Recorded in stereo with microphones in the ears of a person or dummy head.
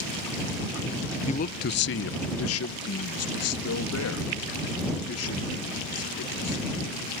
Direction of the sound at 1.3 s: 30° left (ahead or behind).